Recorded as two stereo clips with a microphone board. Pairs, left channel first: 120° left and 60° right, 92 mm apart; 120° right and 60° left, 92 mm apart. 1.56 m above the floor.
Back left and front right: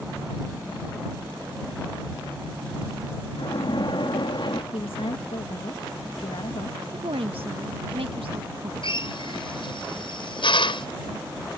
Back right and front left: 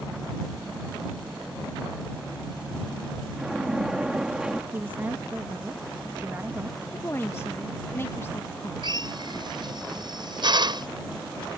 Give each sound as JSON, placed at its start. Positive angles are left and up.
{"t": 3.4, "sound": "a splash", "azimuth_deg": 145}
{"t": 4.7, "sound": "a woman speaking", "azimuth_deg": 130}
{"t": 6.9, "sound": "a woman speaking", "azimuth_deg": -55}
{"t": 8.8, "sound": "a drill", "azimuth_deg": 95}